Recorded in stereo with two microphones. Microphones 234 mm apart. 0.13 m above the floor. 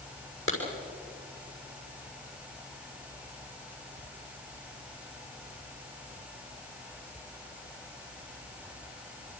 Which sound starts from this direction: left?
A clap, at 0.5 s.